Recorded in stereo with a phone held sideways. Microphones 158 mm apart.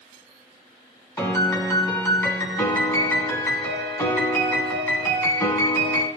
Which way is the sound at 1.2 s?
20° left (ahead or behind).